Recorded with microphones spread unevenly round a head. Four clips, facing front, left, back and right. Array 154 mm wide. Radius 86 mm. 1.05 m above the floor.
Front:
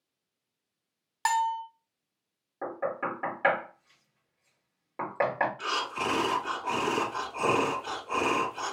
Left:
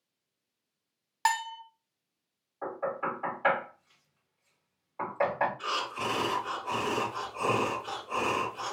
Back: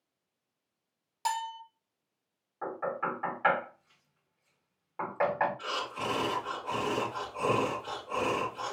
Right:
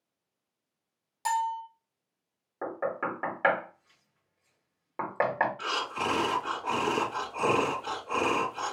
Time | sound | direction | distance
1.2 | a bell | 50° left | 0.7 m
2.6 | knocking | 65° right | 1.7 m
5.6 | breathing | 50° right | 1.5 m